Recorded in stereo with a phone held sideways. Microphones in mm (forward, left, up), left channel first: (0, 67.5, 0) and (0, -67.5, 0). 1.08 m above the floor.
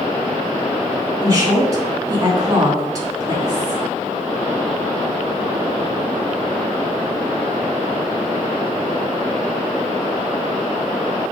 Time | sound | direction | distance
1.2 | a woman speaking | 25° right (ahead or behind) | 2.5 m